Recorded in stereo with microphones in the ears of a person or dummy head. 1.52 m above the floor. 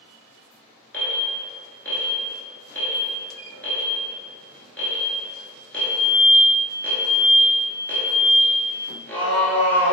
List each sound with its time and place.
0.9 s an alarm: 10° left (ahead or behind), 1.5 m